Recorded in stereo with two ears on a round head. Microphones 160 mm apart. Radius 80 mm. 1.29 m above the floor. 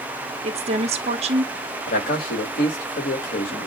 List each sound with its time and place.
0.4 s a woman speaking: 35° right (ahead or behind), 1.2 m
1.9 s a man speaking: 50° left (ahead or behind), 2.5 m